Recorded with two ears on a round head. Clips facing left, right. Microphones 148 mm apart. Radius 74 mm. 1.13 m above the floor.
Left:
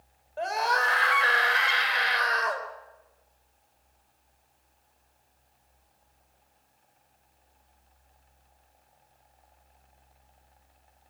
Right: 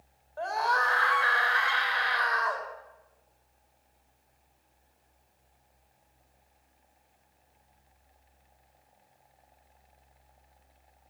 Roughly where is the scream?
Left.